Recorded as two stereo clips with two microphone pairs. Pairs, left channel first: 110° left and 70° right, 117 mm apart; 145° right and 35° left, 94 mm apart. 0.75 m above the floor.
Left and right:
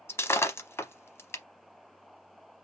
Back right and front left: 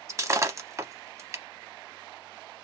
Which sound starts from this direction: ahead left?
Breaking glass, at 0.1 s.